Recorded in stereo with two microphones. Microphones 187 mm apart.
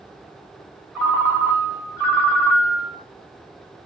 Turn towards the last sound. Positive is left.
turn(degrees=-10)  # may be behind; listen again after turning